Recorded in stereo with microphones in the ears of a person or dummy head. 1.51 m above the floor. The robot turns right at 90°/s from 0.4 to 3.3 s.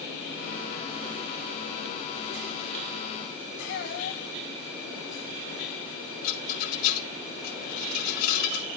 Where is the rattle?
55° left (ahead or behind), 3.5 m.